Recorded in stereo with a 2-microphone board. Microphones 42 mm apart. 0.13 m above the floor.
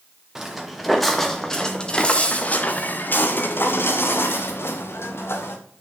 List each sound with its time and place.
0.3 s footsteps: 5° right (ahead or behind), 1.6 m; by 5.6 s 85° left, 2 m